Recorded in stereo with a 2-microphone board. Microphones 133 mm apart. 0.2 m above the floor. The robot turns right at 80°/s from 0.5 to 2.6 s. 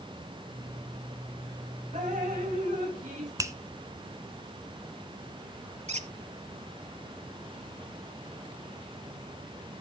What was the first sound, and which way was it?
Dripping, 125° right.